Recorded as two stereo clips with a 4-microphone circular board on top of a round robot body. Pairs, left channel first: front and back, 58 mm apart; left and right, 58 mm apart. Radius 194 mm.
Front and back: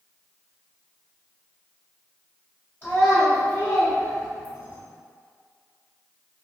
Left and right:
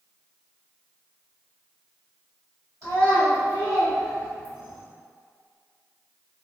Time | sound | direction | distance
2.8 | a child speaking | 60° right | 1.5 m